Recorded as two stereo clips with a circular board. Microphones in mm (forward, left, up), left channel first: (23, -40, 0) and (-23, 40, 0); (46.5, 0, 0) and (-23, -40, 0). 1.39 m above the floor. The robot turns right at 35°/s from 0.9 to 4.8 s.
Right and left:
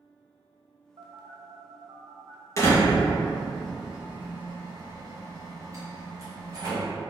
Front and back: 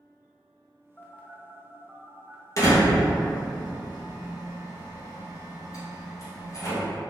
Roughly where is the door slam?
Ahead.